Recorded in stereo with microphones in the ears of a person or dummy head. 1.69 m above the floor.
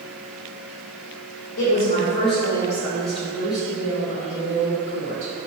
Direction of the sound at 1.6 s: 70° left (ahead or behind).